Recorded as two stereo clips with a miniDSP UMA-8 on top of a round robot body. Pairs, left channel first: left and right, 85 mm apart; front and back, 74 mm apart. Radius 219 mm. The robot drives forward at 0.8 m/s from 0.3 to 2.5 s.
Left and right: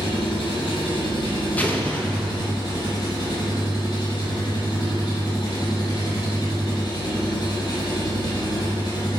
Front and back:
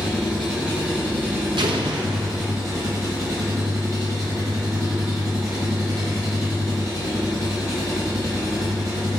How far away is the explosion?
About 1.0 m.